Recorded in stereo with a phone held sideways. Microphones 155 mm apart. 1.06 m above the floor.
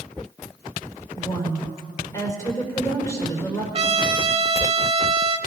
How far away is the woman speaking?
About 4 m.